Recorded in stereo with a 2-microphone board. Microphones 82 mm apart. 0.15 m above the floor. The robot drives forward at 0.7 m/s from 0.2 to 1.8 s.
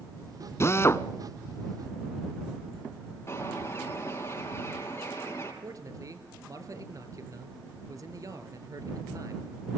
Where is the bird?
30° left (ahead or behind), 5 m.